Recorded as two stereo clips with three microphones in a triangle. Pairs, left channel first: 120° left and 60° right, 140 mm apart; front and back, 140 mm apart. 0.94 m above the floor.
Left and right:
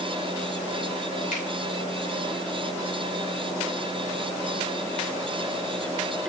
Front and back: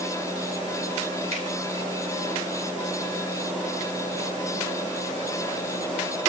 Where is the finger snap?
140° left, 2.5 m.